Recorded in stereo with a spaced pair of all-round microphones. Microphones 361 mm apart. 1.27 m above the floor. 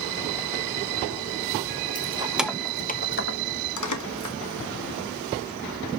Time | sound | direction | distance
1.9 | keys jangling | 20° right (ahead or behind) | 0.9 m